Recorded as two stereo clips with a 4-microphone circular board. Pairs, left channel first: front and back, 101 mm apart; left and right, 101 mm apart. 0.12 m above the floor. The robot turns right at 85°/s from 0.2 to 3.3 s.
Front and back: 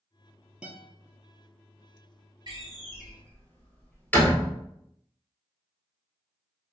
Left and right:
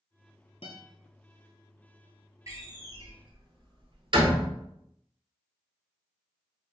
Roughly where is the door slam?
Behind right.